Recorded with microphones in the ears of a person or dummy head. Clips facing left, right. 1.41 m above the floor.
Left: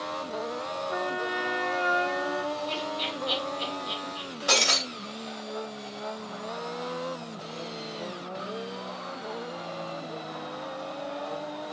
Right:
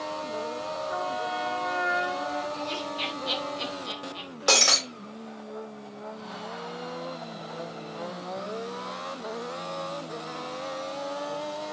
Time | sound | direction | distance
0.9 | a trumpet | 30° right (ahead or behind) | 2.5 m
2.5 | laughter | 85° right | 3 m
4.5 | breaking glass | 75° right (ahead or behind) | 3.5 m